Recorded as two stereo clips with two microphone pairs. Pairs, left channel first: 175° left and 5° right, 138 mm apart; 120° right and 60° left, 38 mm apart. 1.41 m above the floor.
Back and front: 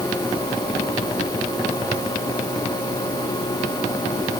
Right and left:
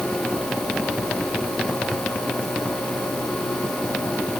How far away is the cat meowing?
No cat meowing in this recording.